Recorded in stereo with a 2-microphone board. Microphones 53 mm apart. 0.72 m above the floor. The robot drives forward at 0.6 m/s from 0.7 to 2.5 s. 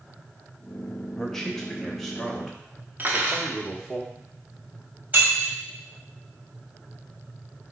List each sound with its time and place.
1.2 s a man speaking: 10° left (ahead or behind), 0.7 m; by 4.0 s 5° left (ahead or behind), 1.3 m
3.0 s cutlery clinking: 30° right (ahead or behind), 0.7 m
5.1 s breaking glass: 25° right (ahead or behind), 1.7 m